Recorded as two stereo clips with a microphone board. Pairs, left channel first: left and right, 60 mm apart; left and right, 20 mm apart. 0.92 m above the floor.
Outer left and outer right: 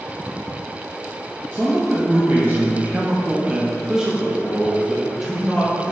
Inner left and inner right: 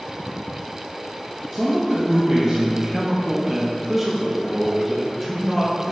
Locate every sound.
1.5 s a man speaking: 25° right (ahead or behind), 1.1 m; by 5.9 s 5° left (ahead or behind), 2 m